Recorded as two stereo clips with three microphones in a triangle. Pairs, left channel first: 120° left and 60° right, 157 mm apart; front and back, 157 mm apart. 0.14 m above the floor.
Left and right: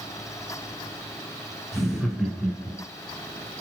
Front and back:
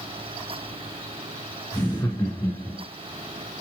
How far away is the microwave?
No microwave in this recording.